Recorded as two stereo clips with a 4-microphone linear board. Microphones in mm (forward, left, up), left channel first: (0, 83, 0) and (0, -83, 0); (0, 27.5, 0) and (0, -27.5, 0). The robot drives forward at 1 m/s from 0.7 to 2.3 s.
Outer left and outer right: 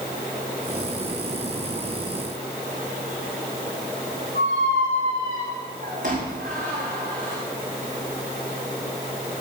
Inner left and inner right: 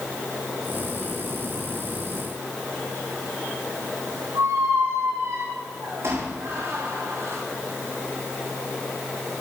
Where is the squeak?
85° right, 6 m.